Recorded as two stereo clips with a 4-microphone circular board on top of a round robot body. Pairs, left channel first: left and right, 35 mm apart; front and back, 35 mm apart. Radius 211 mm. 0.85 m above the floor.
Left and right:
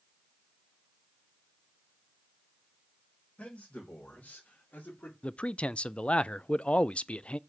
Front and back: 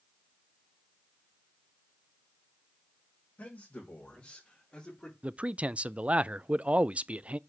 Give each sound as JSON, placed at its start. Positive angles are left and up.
{"t": 3.4, "sound": "a man speaking", "azimuth_deg": 40, "distance_m": 4.0}
{"t": 5.2, "sound": "a man speaking", "azimuth_deg": 135, "distance_m": 0.6}